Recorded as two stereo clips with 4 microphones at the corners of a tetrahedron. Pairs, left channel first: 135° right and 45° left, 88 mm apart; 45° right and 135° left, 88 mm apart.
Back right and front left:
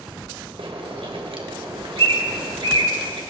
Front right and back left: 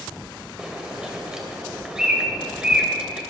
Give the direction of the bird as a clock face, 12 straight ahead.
10 o'clock.